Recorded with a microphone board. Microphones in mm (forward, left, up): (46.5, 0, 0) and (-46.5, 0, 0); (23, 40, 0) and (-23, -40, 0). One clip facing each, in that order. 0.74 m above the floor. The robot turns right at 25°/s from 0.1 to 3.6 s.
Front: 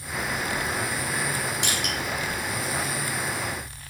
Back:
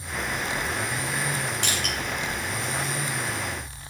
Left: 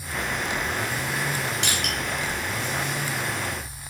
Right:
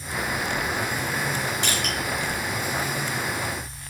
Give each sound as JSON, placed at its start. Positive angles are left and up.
{"t": 1.6, "sound": "crushing", "azimuth_deg": 70, "distance_m": 2.5}